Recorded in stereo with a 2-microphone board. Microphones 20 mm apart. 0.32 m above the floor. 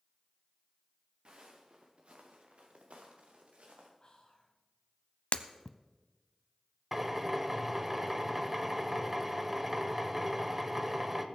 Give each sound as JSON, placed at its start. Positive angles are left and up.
{"t": 1.2, "sound": "footsteps", "side_deg": -55, "distance_m": 2.5}
{"t": 4.0, "sound": "whispering", "side_deg": 45, "distance_m": 2.5}
{"t": 5.3, "sound": "breaking glass", "side_deg": 70, "distance_m": 0.6}
{"t": 6.9, "sound": "a drill", "side_deg": -10, "distance_m": 1.0}